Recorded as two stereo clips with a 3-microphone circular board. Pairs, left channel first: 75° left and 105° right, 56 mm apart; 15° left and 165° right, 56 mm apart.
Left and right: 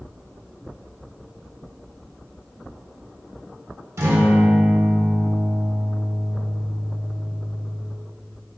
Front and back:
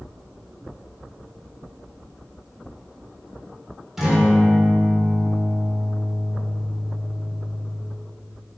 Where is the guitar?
80° right, 0.7 m.